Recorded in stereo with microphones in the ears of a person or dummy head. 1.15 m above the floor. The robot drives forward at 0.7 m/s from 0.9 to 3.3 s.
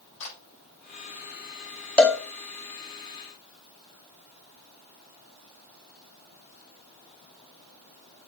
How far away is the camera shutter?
About 6 m.